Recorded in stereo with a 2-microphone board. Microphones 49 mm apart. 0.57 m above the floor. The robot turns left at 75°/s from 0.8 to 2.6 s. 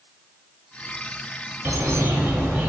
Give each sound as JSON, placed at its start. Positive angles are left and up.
{"t": 1.6, "sound": "a bird", "azimuth_deg": -70, "distance_m": 0.5}